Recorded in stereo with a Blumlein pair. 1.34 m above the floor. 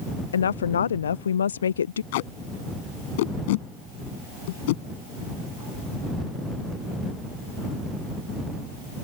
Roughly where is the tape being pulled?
Ahead left.